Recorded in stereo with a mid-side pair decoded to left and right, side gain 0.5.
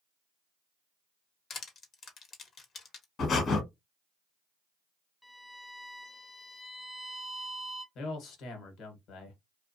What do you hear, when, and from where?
1.5 s crushing: 50° left, 0.9 m
3.2 s breathing: 50° left, 1.3 m
5.2 s a violin: 10° left, 0.7 m
8.0 s a man speaking: 65° left, 1.2 m